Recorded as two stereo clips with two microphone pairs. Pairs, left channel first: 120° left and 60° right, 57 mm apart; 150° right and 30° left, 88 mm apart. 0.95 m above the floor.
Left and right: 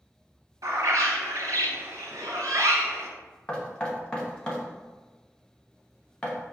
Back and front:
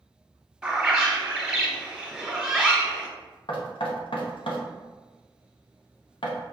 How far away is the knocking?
About 0.9 m.